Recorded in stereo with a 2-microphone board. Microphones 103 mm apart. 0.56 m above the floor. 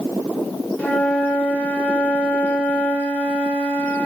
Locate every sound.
0.8 s a flute: 15° left (ahead or behind), 1.9 m